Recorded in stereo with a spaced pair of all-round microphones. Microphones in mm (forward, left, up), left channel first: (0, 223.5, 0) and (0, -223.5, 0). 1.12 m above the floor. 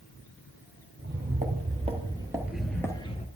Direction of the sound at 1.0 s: 20° right (ahead or behind).